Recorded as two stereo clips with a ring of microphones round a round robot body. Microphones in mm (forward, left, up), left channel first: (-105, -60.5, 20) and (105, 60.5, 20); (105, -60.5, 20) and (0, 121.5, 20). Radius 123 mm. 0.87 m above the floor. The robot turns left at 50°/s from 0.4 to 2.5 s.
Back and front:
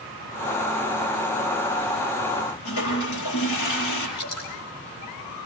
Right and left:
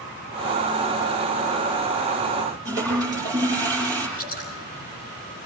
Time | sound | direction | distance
2.6 | a toilet flushing | 165° right | 9 m
4.2 | dripping | 120° right | 8.5 m